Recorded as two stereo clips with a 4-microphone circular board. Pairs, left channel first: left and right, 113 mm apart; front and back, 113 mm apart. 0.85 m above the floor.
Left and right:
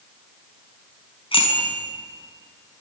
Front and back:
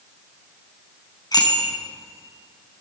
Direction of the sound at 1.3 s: 55° left.